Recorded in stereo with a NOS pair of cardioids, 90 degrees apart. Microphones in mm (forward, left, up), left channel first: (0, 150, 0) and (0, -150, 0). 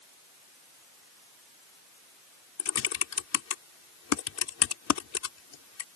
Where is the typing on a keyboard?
60° left.